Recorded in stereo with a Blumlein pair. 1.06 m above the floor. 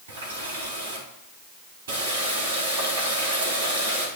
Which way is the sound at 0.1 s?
65° right.